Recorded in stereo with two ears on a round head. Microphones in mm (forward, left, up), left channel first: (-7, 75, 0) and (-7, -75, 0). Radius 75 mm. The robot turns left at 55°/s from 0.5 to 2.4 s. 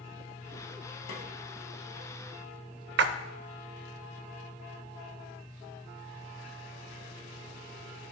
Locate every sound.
1.1 s a snare drum: 85° left, 1.8 m; by 1.3 s 80° left, 1.8 m
3.0 s a splash: 65° right (ahead or behind), 0.5 m